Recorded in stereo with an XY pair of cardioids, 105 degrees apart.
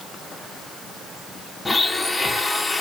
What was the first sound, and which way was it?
A blender, 15° left.